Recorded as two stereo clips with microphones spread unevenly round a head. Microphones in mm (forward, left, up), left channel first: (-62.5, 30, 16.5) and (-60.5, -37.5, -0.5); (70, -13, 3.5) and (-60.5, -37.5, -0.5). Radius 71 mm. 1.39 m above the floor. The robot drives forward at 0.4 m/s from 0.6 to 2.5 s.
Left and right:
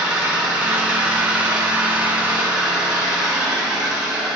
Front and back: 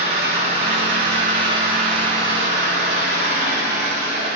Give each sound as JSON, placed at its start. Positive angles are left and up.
{"t": 0.0, "sound": "an engine running", "azimuth_deg": -170, "distance_m": 3.0}